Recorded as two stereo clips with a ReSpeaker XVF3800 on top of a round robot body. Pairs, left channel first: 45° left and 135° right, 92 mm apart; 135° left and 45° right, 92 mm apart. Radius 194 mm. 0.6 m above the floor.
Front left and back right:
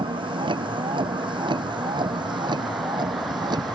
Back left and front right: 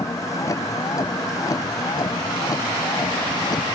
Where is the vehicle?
165° right; by 3.8 s 175° right.